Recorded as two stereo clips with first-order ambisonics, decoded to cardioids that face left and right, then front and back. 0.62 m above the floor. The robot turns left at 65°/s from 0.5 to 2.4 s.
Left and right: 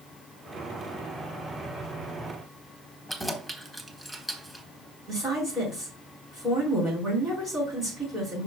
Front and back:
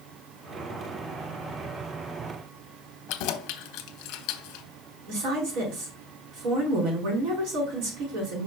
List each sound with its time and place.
3.1 s keys jangling: 5° right, 0.8 m
5.1 s a woman speaking: 170° right, 4.5 m